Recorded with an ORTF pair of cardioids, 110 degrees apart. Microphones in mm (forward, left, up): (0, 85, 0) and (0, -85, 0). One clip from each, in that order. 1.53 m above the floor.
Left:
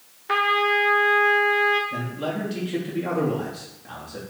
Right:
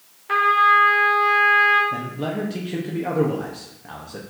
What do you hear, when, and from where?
0.3 s a trumpet: 15° left, 0.7 m
1.9 s a man speaking: 25° right, 0.9 m